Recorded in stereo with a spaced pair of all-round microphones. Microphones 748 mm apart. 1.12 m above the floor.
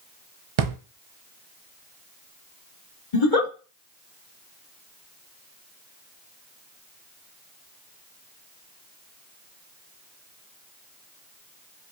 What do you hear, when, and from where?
0.6 s a drawer: 55° right (ahead or behind), 0.6 m
3.1 s a giggle: 65° left (ahead or behind), 2.5 m